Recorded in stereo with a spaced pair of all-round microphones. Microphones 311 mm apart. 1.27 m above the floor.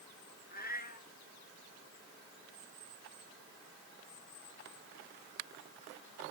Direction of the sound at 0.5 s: 30° left (ahead or behind).